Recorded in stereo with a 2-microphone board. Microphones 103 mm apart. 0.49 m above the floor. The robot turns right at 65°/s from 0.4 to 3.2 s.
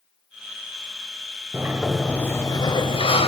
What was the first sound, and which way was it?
A sliding door, 25° right.